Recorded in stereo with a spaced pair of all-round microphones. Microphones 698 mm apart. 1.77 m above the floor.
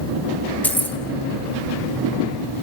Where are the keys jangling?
Centre (ahead or behind), 3 m.